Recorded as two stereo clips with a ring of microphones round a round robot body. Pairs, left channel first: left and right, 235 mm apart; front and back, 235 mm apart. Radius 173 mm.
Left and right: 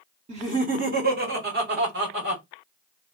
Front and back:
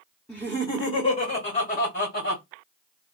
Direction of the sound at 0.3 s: 80° right.